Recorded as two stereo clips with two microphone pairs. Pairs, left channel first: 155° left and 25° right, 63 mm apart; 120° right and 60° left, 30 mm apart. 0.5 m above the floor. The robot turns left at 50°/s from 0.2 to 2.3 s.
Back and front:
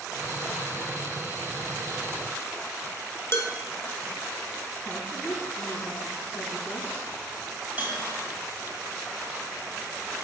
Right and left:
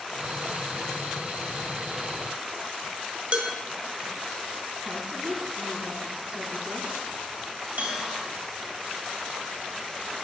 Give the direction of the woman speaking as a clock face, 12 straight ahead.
9 o'clock.